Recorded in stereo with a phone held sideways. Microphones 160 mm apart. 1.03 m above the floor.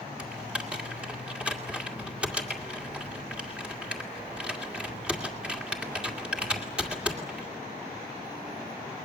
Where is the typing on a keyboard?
5° right (ahead or behind), 2 m.